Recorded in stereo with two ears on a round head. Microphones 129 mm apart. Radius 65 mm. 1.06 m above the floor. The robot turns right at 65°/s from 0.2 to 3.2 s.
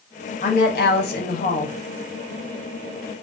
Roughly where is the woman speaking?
Ahead left.